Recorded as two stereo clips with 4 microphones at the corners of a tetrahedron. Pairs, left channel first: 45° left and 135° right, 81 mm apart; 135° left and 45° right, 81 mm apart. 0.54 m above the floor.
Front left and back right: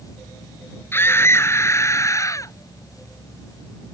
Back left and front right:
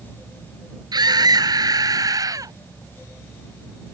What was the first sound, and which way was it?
A scream, 15° right.